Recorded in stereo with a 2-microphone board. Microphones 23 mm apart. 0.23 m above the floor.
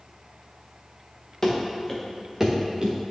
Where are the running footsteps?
20° left (ahead or behind), 2.5 m; by 3.0 s 40° right (ahead or behind), 2 m.